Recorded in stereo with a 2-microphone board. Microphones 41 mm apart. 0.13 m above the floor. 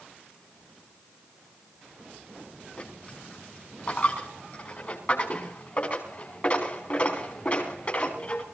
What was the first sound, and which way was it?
A dropped coin, 45° left (ahead or behind).